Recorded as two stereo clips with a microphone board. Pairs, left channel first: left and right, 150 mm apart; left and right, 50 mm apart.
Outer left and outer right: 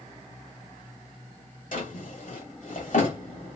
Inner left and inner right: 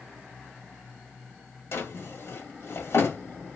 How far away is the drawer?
About 1.2 m.